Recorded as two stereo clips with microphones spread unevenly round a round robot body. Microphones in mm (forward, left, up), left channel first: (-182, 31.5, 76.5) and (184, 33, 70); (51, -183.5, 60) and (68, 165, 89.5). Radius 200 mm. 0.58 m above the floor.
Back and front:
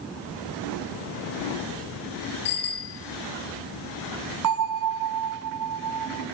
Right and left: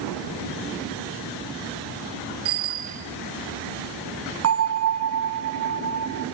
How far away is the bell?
About 1.2 m.